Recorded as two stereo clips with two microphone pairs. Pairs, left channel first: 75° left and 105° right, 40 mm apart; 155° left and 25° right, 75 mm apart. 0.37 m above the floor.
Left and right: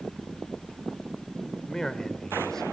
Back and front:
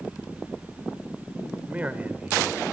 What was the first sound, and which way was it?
A man speaking, 15° left.